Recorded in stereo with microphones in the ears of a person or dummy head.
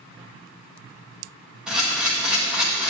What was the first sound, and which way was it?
A camera shutter, 5° right (ahead or behind).